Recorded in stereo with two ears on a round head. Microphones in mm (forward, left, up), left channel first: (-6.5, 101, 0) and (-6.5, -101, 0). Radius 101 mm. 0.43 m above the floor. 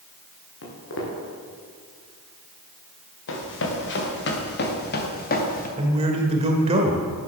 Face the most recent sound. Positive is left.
turn(degrees=-25)  # may be behind; listen again after turning